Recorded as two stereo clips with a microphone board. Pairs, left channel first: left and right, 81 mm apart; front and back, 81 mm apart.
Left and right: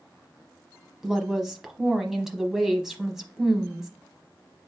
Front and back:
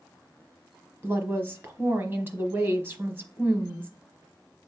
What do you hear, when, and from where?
1.0 s a woman speaking: 170° right, 1.0 m